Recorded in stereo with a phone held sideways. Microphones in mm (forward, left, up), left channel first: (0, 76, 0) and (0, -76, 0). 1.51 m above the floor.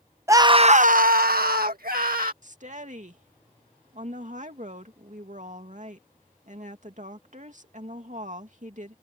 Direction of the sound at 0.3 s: 20° right (ahead or behind).